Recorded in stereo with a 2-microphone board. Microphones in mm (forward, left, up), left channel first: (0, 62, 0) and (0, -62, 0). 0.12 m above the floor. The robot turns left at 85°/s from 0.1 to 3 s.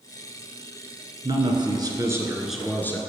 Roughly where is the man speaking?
Ahead right.